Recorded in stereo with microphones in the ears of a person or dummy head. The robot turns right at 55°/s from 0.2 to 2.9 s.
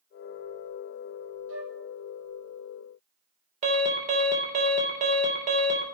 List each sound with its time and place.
1.5 s a flute: 70° right (ahead or behind), 1.7 m; by 1.8 s 60° right (ahead or behind), 1.7 m
3.6 s an alarm: 40° right (ahead or behind), 3 m